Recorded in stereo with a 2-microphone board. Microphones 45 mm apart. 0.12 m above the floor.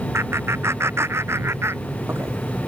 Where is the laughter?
75° right (ahead or behind).